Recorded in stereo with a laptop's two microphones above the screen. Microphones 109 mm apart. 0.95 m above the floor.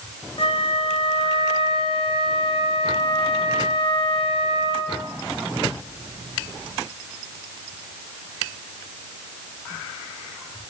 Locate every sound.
0.4 s a flute: 55° left (ahead or behind), 0.5 m